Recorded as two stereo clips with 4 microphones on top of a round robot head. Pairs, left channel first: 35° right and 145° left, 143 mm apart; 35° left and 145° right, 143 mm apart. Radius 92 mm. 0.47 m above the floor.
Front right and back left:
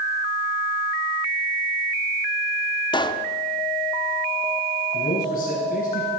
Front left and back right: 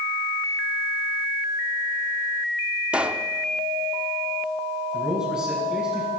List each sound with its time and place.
2.9 s a pop: 70° right, 0.9 m
4.9 s a man speaking: 70° right, 4.5 m